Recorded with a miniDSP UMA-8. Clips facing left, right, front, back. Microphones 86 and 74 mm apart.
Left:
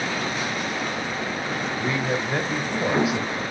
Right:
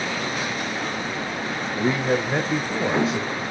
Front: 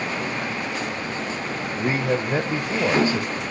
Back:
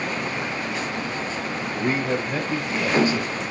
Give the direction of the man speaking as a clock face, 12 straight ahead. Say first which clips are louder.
Right 5 dB, front 1 dB; 2 o'clock.